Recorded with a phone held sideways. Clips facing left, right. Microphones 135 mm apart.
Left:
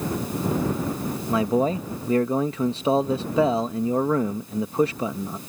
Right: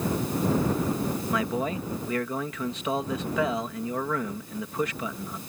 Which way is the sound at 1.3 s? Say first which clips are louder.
Left 10 dB; 30° left (ahead or behind).